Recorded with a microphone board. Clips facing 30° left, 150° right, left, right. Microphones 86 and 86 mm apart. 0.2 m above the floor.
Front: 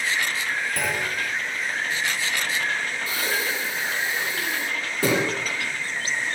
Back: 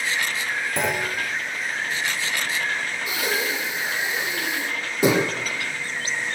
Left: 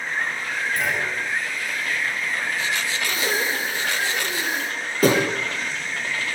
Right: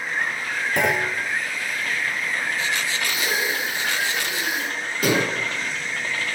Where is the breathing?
140° left, 7.5 m.